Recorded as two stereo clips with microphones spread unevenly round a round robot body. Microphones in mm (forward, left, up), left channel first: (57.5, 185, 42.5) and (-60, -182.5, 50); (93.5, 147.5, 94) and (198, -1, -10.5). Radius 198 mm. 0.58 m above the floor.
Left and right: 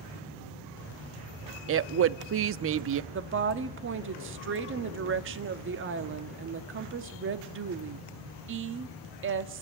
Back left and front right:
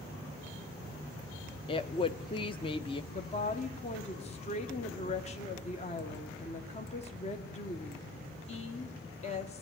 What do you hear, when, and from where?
1.7 s a woman speaking: 140° right, 0.7 m
3.1 s a woman speaking: 150° right, 1.4 m